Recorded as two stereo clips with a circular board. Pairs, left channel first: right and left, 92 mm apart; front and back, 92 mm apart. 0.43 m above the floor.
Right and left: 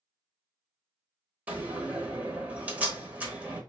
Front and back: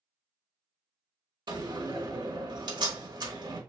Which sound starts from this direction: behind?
A door slam, at 1.5 s.